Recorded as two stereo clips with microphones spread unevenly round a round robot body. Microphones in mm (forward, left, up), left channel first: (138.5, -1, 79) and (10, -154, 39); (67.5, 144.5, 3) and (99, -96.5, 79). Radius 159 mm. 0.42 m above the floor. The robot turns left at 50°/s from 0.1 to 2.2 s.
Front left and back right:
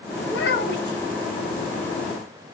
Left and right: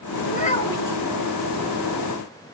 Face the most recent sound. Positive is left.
turn(degrees=-45)